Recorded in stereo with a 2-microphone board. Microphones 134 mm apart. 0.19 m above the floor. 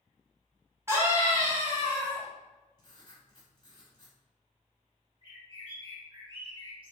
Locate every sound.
0.9 s a scream: 20° right (ahead or behind), 1.5 m
2.8 s writing: 35° left (ahead or behind), 1.1 m
5.2 s a bird: 45° right (ahead or behind), 1.8 m